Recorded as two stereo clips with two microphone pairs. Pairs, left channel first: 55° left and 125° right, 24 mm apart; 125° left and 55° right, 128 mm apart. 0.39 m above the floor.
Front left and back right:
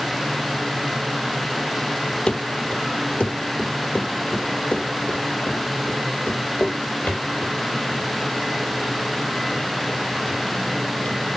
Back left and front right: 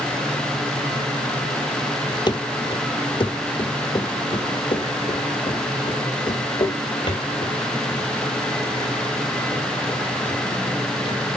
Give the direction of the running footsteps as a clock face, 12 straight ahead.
9 o'clock.